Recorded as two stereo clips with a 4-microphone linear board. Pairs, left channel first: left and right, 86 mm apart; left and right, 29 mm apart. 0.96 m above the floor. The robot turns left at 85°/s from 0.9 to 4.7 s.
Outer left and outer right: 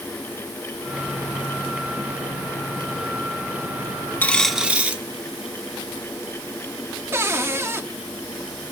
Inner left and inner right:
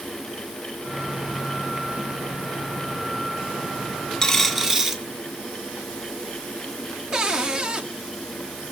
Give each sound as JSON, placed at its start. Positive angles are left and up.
{"t": 4.2, "sound": "a dropped coin", "azimuth_deg": 25, "distance_m": 1.3}
{"t": 7.1, "sound": "a cupboard door", "side_deg": -30, "distance_m": 1.4}